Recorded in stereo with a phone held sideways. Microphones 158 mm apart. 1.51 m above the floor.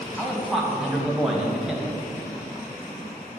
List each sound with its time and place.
0.2 s a man speaking: 5° right (ahead or behind), 1.3 m